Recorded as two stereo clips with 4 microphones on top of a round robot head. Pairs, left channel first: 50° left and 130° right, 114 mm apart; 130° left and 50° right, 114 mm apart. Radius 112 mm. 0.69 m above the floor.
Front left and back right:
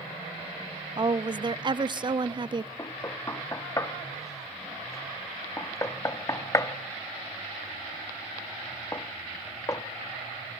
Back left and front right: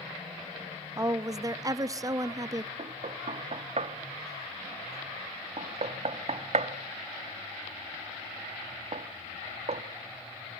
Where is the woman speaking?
100° right, 0.9 m.